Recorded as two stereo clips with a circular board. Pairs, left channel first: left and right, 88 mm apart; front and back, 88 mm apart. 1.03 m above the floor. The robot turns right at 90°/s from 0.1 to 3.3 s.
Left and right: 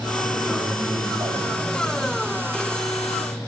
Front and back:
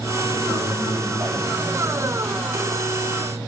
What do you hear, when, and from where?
0.2 s a man speaking: 160° left, 5.5 m; by 2.1 s 25° right, 5.5 m